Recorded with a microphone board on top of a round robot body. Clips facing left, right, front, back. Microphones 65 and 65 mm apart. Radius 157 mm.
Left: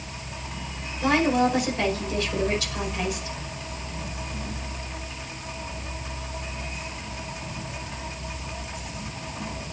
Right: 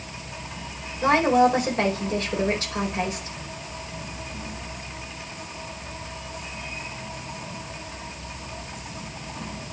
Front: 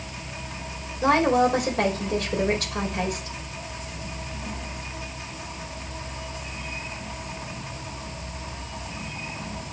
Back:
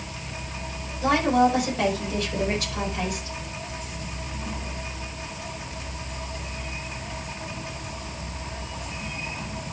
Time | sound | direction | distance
1.0 | a woman speaking | 35° right | 5 m